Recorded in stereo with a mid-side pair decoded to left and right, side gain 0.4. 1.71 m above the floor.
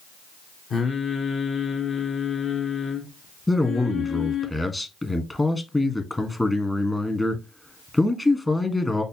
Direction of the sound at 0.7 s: 55° left.